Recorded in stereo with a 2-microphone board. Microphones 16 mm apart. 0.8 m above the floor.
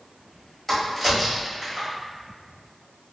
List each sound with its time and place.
0.7 s a crack: 10° left (ahead or behind), 1.8 m